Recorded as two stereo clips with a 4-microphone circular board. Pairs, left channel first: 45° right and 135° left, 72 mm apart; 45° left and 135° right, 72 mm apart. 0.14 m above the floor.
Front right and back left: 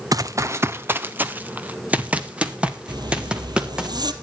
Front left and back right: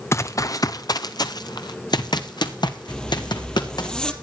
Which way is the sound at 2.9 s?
125° left.